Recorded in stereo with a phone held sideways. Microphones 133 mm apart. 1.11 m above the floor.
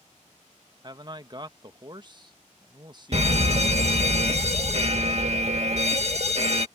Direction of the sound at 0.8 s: 35° right (ahead or behind).